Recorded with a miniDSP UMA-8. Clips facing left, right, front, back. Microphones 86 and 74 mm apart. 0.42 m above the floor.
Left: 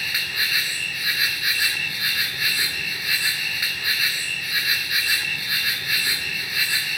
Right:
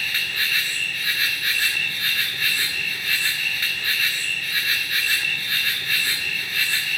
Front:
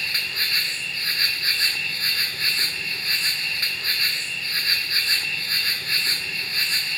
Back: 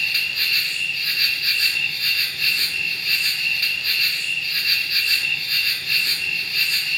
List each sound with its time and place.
0.0 s an insect: 15° left, 1.8 m